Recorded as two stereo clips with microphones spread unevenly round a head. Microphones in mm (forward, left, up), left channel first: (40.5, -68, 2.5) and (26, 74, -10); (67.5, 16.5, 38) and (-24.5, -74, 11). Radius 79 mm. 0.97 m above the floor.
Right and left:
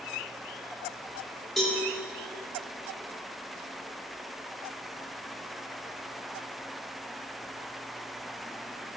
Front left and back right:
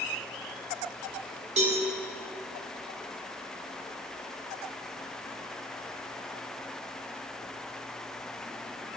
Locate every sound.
1.6 s a cowbell: 175° right, 1.7 m